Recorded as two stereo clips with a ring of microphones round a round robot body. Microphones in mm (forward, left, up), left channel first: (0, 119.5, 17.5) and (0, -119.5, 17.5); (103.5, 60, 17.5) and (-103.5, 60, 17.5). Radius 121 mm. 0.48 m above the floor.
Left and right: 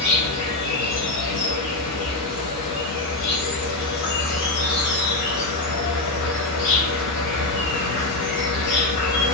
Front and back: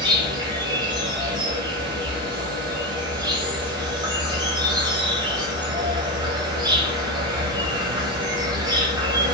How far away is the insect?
About 1.1 m.